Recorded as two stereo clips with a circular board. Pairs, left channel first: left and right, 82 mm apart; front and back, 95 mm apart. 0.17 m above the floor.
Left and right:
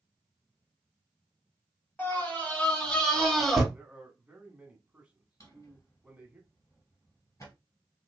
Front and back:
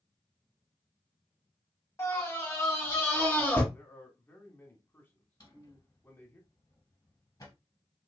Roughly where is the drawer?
Ahead left.